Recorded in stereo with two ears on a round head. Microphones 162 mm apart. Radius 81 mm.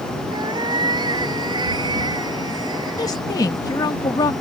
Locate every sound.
0.3 s a cat meowing: 25° right (ahead or behind)
3.0 s a woman speaking: 20° left (ahead or behind)